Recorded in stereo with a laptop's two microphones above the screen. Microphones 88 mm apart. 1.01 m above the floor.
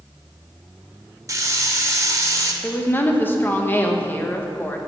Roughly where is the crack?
I don't hear a crack.